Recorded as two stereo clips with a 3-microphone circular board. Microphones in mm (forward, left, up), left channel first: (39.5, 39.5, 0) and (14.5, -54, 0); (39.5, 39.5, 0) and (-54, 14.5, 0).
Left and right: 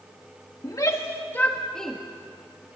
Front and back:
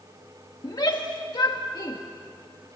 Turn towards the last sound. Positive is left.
turn(degrees=-15)